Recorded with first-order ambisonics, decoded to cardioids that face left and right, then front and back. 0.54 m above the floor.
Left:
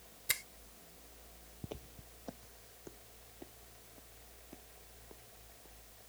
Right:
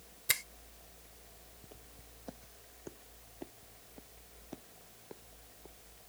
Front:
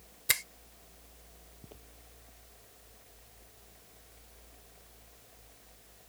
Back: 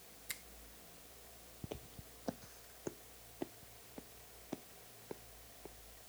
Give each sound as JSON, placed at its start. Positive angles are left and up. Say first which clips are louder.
{"t": 0.3, "sound": "a finger snap", "louder": "right 4 dB, front 18 dB", "azimuth_deg": -10}
{"t": 1.6, "sound": "footsteps", "louder": "left 11 dB, back 8 dB", "azimuth_deg": 110}